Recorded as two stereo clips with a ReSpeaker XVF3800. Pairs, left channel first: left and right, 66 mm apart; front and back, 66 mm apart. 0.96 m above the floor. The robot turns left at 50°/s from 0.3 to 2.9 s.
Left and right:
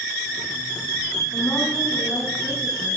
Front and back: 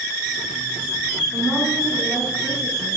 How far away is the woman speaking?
About 7 m.